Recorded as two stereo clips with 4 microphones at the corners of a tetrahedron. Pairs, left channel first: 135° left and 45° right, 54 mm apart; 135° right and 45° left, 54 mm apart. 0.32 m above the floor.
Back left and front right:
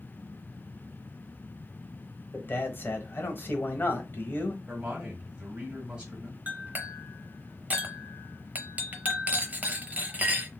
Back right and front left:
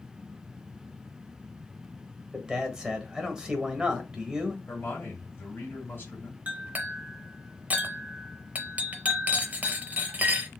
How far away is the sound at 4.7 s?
About 1.6 m.